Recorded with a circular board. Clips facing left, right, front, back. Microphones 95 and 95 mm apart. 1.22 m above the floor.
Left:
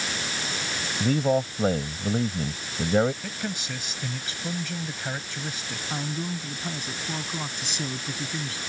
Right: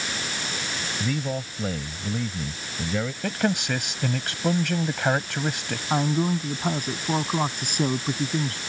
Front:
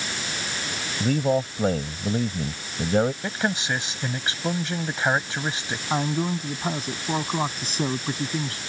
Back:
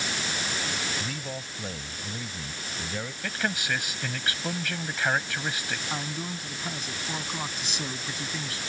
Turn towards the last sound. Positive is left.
turn(degrees=-50)